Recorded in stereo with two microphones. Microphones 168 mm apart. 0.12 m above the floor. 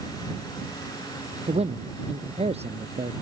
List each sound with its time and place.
1.5 s a man speaking: 35° right (ahead or behind)